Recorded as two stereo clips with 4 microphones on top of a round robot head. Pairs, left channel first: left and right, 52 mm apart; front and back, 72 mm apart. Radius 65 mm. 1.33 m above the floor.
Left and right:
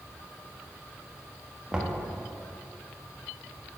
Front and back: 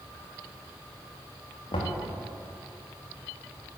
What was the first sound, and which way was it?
Knocking, 15° right.